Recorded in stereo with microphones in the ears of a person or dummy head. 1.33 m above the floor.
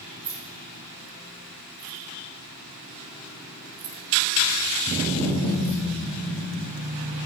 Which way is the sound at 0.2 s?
80° right.